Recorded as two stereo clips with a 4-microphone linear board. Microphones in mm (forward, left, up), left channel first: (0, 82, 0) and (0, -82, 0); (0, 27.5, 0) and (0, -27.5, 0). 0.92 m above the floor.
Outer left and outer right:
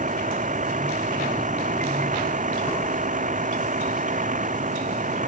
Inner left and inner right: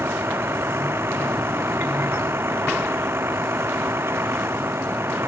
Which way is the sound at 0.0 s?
50° right (ahead or behind).